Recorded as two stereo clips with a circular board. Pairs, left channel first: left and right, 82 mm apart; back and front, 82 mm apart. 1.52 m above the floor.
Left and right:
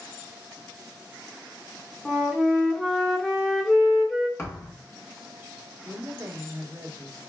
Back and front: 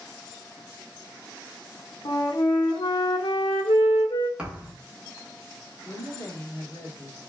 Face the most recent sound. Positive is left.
turn(degrees=-135)